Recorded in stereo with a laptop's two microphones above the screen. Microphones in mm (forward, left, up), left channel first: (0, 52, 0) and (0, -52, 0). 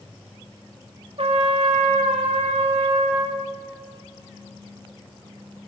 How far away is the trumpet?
About 2.5 m.